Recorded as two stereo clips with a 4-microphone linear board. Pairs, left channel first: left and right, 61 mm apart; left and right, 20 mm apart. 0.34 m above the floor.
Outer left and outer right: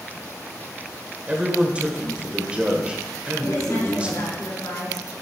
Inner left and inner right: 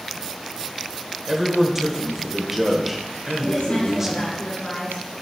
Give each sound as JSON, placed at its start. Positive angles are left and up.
{"t": 1.3, "sound": "a man speaking", "side_deg": -20, "distance_m": 1.1}
{"t": 3.4, "sound": "a woman speaking", "side_deg": 70, "distance_m": 3.0}